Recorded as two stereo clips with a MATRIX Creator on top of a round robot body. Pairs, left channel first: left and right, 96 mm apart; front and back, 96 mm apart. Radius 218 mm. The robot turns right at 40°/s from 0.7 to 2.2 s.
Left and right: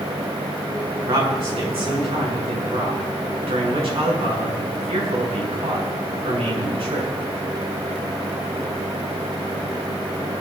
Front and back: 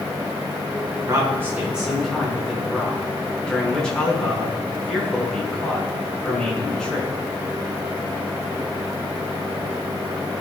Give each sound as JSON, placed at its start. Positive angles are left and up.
{"t": 1.1, "sound": "a man speaking", "azimuth_deg": -125, "distance_m": 7.5}